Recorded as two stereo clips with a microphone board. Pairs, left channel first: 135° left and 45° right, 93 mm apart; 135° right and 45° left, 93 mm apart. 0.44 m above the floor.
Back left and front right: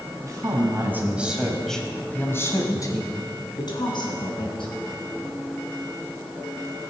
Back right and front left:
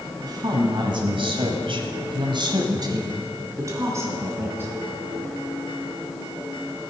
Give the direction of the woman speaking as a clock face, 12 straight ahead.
12 o'clock.